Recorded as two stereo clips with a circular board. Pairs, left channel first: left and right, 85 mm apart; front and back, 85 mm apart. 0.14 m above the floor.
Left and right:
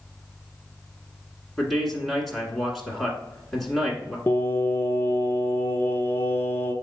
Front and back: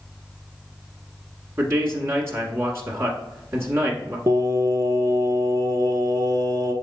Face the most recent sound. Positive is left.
turn(degrees=150)